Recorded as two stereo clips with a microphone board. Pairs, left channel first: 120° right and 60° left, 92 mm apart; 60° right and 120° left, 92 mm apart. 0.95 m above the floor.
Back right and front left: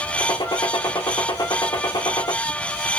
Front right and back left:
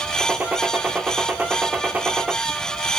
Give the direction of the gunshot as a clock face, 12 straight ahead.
5 o'clock.